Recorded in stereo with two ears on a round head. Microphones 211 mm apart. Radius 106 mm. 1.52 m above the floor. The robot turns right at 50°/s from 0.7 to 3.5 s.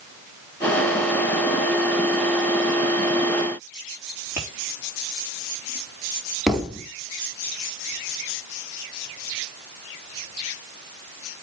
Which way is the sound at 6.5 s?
Centre (ahead or behind).